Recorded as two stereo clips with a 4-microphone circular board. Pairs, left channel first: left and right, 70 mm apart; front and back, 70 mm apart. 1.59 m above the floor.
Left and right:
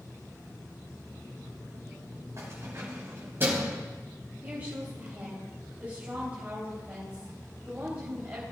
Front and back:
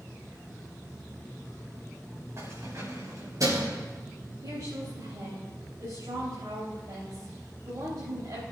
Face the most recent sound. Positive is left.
turn(degrees=-150)